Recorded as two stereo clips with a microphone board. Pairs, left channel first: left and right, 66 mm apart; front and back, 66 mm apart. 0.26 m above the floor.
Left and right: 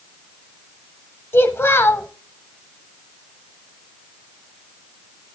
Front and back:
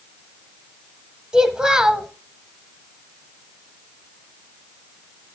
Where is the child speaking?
110° left, 0.9 m.